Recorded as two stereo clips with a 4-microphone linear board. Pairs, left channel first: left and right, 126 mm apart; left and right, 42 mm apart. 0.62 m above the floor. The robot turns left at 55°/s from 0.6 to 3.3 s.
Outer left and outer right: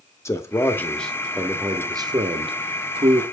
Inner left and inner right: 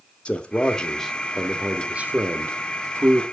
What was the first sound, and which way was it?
A man speaking, 30° left.